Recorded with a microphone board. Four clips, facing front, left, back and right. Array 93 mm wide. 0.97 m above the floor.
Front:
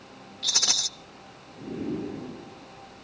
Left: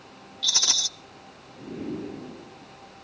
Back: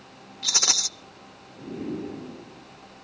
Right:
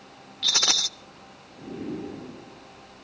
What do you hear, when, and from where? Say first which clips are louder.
0.4 s a rattle: right 4 dB, back 3 dB; 110° right, 0.8 m